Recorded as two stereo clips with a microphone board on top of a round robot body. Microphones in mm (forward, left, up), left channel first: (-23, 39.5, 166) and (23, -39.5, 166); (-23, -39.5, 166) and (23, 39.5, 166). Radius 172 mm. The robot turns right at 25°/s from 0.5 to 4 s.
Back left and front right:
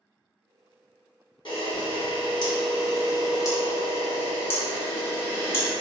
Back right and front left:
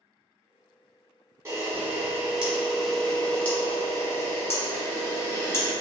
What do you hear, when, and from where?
1.4 s a camera shutter: 120° left, 1.4 m; by 5.7 s straight behind, 1.4 m